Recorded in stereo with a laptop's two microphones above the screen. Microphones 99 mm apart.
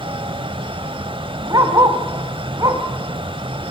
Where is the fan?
55° right (ahead or behind), 1.2 m.